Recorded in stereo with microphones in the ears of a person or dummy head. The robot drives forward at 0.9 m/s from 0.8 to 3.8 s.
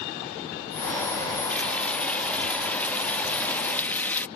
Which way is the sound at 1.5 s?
5° left (ahead or behind).